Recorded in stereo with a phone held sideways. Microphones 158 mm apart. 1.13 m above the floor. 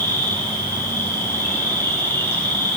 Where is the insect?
20° left (ahead or behind), 7 m.